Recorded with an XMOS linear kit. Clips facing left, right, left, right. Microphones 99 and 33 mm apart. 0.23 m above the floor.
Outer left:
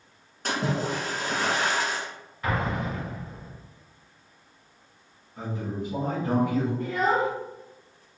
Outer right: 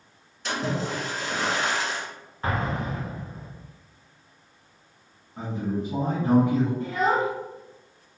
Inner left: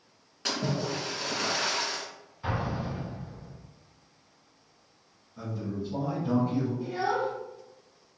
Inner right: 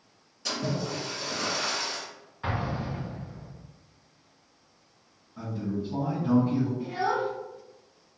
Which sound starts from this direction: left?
A splash, at 0.5 s.